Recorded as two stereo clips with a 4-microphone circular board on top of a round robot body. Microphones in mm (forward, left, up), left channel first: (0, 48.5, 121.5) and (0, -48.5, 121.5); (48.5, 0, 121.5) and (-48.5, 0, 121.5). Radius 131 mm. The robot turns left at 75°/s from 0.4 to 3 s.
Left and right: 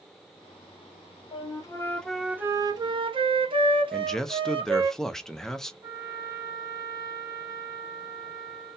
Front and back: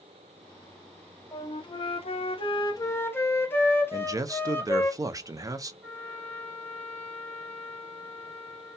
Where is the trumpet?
120° right, 1.3 m.